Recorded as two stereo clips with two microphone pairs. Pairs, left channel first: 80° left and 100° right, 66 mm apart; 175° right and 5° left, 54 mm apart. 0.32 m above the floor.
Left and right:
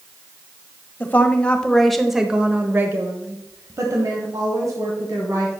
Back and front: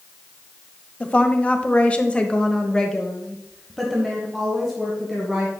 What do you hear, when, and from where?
1.0 s a woman speaking: 135° left, 1.2 m; by 5.5 s 75° right, 2.5 m